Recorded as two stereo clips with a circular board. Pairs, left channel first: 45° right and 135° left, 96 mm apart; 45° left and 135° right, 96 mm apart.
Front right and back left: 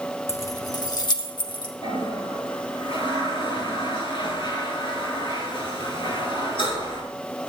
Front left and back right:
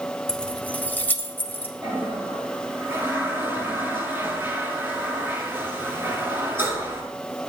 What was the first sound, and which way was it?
Keys jangling, 30° right.